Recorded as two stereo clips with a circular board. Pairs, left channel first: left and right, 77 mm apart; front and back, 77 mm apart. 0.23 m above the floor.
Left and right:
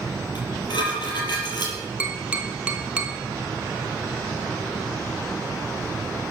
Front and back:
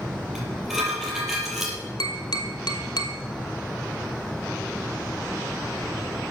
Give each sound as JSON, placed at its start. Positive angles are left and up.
{"t": 0.3, "sound": "dishes clattering", "azimuth_deg": 95, "distance_m": 4.0}
{"t": 2.0, "sound": "tapping", "azimuth_deg": -15, "distance_m": 1.5}